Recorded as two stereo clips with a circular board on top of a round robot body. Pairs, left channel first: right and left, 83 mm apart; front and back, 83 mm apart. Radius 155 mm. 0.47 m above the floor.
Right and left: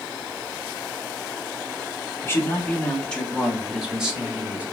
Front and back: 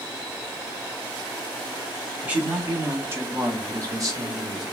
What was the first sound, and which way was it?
A man speaking, 120° right.